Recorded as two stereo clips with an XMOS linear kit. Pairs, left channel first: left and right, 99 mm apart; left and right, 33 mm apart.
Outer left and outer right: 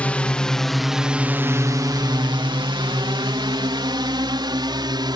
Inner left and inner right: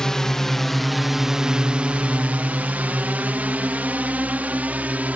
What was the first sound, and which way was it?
A drone, 15° left (ahead or behind).